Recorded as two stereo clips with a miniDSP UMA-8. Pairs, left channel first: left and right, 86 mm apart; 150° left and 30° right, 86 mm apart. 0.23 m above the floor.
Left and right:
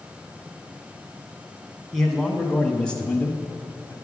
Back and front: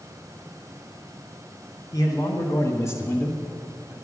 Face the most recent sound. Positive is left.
turn(degrees=70)